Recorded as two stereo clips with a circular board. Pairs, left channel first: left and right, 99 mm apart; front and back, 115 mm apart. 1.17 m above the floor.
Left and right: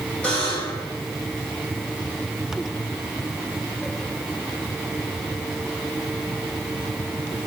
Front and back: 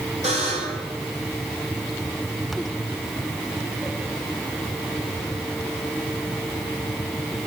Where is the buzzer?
165° left, 3 m.